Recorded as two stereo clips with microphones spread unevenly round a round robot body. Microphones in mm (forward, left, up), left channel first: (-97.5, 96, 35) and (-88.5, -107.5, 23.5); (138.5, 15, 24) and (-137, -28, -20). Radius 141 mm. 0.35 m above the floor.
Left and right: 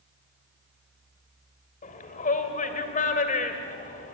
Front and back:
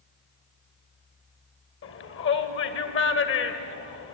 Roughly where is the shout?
Ahead left.